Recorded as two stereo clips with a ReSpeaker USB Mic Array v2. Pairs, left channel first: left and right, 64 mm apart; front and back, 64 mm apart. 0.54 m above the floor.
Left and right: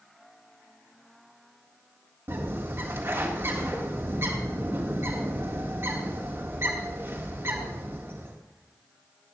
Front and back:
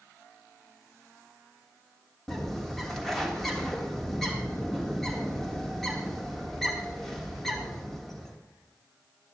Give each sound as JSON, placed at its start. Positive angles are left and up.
{"t": 2.3, "sound": "a bird", "azimuth_deg": -85, "distance_m": 1.5}